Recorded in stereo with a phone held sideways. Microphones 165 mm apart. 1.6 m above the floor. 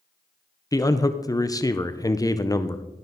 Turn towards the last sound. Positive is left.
turn(degrees=20)  # may be behind; listen again after turning